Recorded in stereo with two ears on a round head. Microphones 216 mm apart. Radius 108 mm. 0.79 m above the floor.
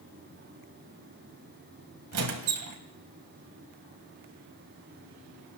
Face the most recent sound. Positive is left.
turn(degrees=-70)  # may be behind; listen again after turning